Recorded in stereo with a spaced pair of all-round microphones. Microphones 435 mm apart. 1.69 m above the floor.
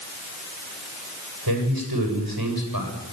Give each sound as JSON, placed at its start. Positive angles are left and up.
{"t": 1.5, "sound": "a man speaking", "side_deg": -50, "distance_m": 8.0}